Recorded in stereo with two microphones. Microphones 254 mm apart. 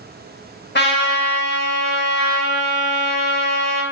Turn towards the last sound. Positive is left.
turn(degrees=45)  # may be behind; listen again after turning